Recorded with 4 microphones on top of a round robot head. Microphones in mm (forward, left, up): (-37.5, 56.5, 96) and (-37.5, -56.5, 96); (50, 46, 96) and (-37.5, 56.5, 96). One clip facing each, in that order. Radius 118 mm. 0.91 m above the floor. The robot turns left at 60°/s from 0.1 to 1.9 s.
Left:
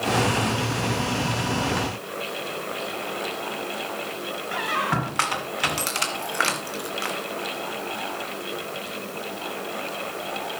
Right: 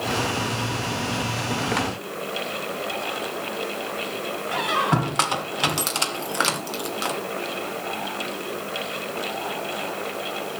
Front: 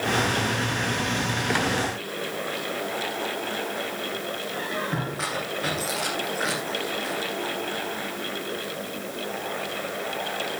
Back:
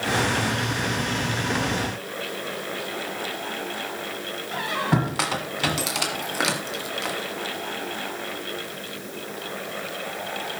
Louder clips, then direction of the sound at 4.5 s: Right 3 dB, back 7 dB; 160° right.